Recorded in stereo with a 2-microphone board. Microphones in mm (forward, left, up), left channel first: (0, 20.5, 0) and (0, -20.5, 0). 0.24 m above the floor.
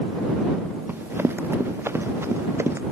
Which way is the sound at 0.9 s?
65° right (ahead or behind).